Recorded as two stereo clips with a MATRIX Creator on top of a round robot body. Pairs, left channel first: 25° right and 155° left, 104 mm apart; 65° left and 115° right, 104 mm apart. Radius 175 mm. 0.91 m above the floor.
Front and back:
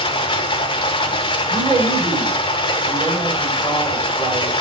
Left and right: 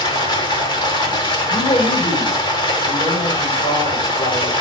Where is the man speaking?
105° left, 5 m.